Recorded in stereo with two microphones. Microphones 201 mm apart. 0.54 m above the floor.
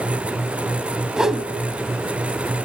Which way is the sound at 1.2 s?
5° right (ahead or behind).